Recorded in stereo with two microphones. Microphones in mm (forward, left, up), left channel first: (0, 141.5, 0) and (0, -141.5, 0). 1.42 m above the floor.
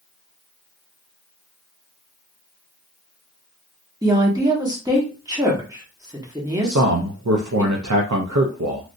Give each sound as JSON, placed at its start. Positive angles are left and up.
{"t": 4.0, "sound": "a woman speaking", "side_deg": -15, "distance_m": 1.2}
{"t": 6.6, "sound": "a man speaking", "side_deg": -75, "distance_m": 0.6}